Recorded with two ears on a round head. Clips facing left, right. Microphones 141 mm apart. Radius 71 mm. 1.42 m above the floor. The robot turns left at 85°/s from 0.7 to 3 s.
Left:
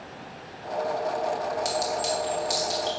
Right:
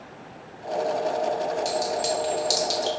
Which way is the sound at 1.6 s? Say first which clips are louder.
Right 2 dB; 20° left (ahead or behind).